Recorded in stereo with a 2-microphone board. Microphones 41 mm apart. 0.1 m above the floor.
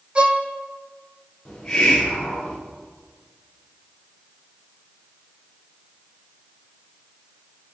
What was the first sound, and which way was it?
A violin, 30° right (ahead or behind).